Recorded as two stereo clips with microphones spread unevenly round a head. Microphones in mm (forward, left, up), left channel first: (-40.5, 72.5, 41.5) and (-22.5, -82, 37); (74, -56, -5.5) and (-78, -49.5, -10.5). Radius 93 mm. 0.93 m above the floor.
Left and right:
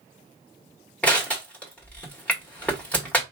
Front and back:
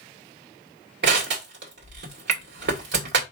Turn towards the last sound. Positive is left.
turn(degrees=180)